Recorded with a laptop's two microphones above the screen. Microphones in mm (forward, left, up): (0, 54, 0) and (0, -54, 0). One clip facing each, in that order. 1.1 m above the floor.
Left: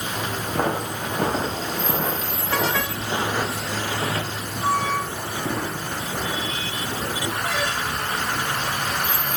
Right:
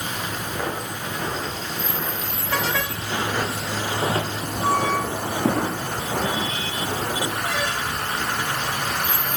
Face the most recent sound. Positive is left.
turn(degrees=-65)  # may be behind; listen again after turning